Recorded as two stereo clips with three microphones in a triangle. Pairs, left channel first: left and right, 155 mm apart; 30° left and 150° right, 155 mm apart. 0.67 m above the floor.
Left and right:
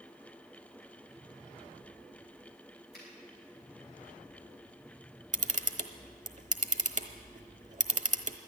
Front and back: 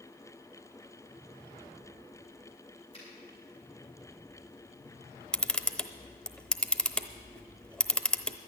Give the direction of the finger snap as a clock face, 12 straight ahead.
9 o'clock.